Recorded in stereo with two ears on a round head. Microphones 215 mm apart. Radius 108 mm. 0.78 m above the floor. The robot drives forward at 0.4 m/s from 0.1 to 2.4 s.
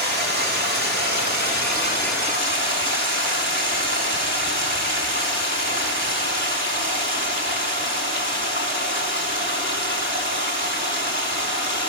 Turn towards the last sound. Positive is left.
turn(degrees=-40)  # may be behind; listen again after turning